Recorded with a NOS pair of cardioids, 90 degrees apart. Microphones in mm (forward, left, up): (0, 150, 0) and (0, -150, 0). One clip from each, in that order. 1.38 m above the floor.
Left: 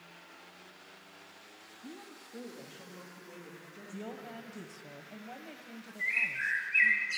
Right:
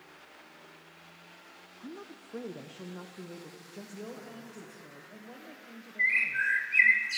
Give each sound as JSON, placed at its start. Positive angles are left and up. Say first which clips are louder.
{"t": 1.8, "sound": "a woman speaking", "louder": "right 4 dB", "azimuth_deg": -20, "distance_m": 0.6}
{"t": 3.9, "sound": "a woman speaking", "louder": "left 1 dB", "azimuth_deg": 20, "distance_m": 1.1}
{"t": 6.0, "sound": "a bird", "louder": "right 5 dB", "azimuth_deg": -55, "distance_m": 2.5}